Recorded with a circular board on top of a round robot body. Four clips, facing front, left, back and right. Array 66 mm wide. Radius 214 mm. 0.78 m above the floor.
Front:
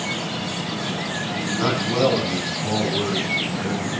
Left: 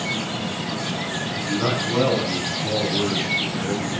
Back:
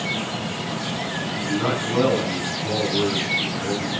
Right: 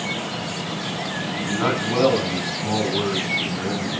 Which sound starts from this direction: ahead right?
A man speaking, at 1.4 s.